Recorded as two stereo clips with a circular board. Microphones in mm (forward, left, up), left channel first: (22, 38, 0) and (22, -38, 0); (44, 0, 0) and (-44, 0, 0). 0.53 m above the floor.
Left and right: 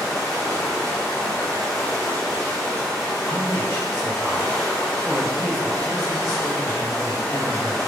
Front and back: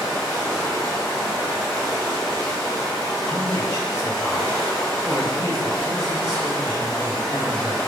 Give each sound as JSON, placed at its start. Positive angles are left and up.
{"t": 0.0, "sound": "running water", "azimuth_deg": 10, "distance_m": 1.2}
{"t": 3.3, "sound": "a man speaking", "azimuth_deg": 105, "distance_m": 1.5}